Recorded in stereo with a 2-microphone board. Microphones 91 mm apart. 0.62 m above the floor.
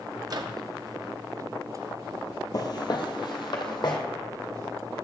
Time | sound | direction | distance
0.3 | a microwave | 45° right (ahead or behind) | 0.6 m
2.5 | footsteps | 45° left (ahead or behind) | 0.8 m